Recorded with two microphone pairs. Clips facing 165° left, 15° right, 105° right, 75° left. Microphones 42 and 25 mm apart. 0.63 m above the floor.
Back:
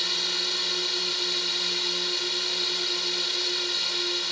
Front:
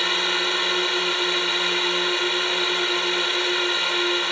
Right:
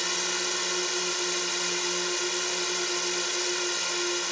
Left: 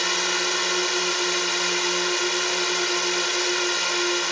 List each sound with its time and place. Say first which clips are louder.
0.0 s a drone: front 8 dB, left 6 dB; 15° left